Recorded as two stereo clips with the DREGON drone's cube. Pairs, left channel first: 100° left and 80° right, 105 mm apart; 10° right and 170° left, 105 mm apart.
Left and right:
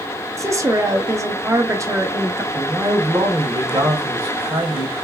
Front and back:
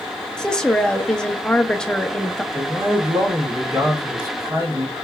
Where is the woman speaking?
90° right, 0.7 m.